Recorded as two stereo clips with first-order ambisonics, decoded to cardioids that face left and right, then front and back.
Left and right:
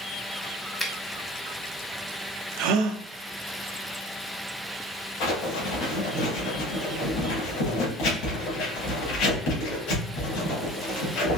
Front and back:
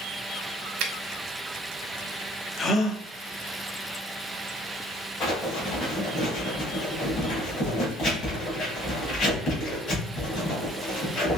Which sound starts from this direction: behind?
A finger snap, at 0.8 s.